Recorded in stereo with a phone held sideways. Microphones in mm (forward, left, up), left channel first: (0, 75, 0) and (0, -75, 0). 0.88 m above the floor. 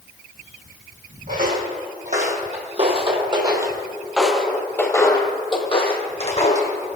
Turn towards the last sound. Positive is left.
turn(degrees=50)  # may be behind; listen again after turning